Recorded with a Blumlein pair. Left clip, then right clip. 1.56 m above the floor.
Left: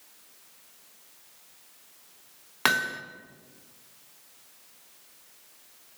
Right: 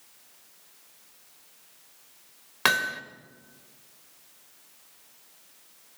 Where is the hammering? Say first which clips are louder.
Right 1 dB; straight ahead, 1.9 m.